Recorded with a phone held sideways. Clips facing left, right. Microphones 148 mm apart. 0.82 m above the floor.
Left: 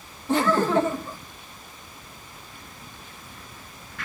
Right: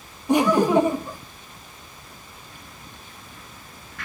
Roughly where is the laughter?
Centre.